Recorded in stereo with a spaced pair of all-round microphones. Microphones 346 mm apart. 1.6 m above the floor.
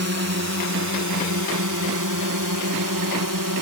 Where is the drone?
45° right (ahead or behind); by 3.6 s 65° right (ahead or behind).